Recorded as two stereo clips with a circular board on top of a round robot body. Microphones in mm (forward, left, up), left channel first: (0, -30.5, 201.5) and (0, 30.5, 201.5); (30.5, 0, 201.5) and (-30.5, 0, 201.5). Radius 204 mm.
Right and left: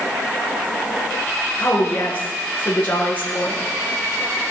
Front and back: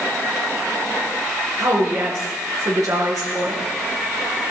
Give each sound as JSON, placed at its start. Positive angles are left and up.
{"t": 1.6, "sound": "a woman speaking", "azimuth_deg": -150, "distance_m": 6.5}